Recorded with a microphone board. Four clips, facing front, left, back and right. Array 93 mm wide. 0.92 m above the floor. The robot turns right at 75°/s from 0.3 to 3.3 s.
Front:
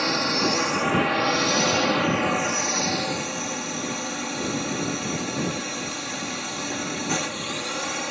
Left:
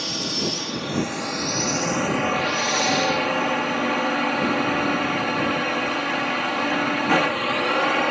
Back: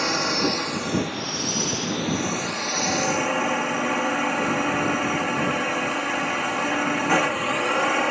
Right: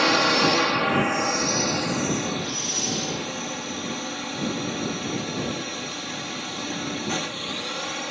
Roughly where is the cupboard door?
No cupboard door in this recording.